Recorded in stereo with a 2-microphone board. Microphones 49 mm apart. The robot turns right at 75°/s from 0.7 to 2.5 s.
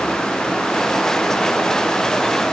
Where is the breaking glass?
No breaking glass in this recording.